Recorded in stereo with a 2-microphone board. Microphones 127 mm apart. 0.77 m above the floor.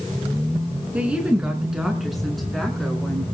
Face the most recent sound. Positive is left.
turn(degrees=5)  # may be behind; listen again after turning